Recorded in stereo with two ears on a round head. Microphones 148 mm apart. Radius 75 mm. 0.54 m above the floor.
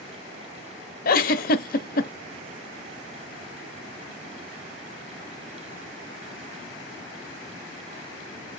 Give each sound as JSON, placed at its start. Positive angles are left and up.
{"t": 1.1, "sound": "a giggle", "side_deg": 55, "distance_m": 0.8}